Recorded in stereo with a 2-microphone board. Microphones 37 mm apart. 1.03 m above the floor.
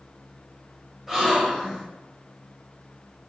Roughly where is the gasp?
Centre.